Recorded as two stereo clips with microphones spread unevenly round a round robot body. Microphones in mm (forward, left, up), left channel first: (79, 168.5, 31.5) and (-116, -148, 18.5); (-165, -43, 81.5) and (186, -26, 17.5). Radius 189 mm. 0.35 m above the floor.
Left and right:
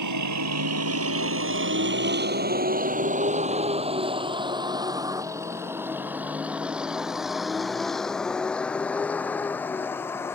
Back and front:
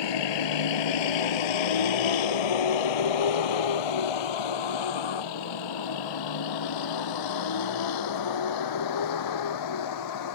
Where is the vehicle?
165° right; by 10.4 s 140° left.